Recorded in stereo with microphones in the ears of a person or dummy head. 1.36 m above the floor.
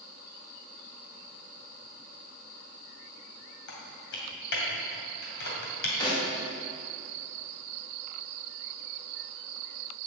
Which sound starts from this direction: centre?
A snare drum, at 6.0 s.